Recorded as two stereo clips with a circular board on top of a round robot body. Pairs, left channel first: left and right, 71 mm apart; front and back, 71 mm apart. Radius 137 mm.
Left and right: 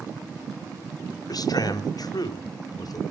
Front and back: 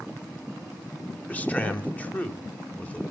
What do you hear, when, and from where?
1.3 s a man speaking: 70° left, 2 m